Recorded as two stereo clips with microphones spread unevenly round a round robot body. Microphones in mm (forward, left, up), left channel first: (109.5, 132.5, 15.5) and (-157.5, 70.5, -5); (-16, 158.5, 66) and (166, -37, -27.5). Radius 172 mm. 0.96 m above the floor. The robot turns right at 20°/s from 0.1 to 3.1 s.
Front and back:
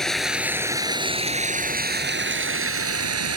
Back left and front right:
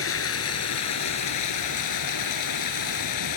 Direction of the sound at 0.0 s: 100° left.